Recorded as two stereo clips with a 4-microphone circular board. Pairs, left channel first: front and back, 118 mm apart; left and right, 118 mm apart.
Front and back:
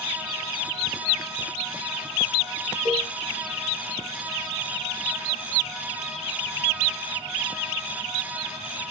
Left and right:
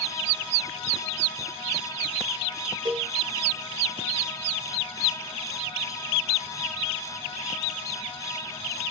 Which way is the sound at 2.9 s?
140° right.